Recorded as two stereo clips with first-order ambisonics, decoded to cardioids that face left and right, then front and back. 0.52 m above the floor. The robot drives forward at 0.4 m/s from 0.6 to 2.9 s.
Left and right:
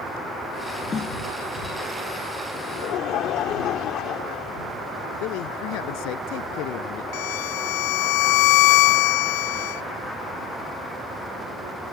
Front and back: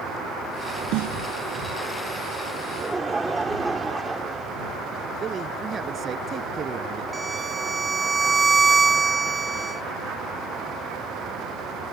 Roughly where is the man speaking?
Behind left.